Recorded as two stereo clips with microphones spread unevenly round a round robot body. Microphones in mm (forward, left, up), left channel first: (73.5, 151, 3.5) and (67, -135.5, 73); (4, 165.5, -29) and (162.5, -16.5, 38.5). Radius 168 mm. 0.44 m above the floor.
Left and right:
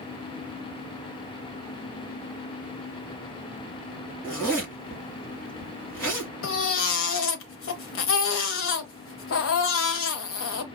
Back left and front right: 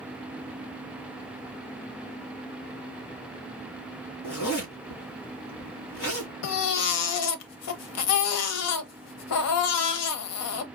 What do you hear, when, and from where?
4.2 s a zipper: 170° left, 4 m
6.4 s a baby crying: 135° left, 0.7 m